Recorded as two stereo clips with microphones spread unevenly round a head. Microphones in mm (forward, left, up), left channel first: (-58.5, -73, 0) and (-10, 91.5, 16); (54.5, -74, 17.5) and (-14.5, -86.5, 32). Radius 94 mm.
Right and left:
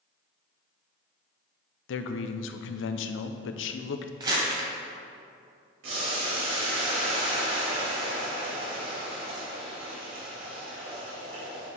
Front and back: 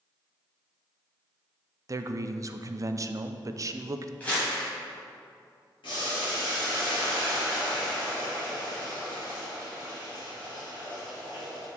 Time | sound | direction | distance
1.9 | a man speaking | 120° right | 0.5 m
4.2 | crumpling | 95° left | 1.4 m
5.8 | boiling | 45° left | 2 m